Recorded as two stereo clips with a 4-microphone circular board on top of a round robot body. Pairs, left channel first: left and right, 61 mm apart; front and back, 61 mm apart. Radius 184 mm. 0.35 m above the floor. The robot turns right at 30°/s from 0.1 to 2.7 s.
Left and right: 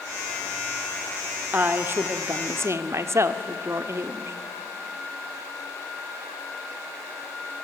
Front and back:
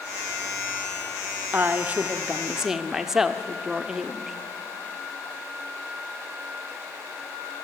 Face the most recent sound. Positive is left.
turn(degrees=-100)